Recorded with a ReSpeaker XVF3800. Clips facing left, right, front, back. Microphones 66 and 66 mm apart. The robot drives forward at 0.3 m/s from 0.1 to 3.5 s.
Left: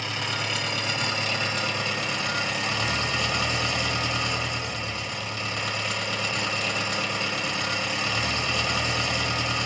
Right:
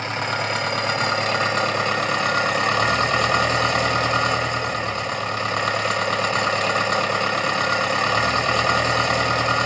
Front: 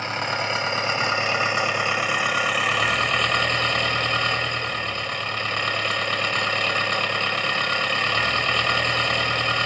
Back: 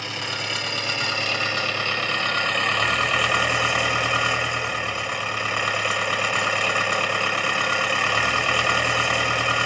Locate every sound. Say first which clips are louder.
0.0 s an engine running: right 6 dB, front 4 dB; 50° right, 1.4 m; by 9.7 s 100° right, 1.1 m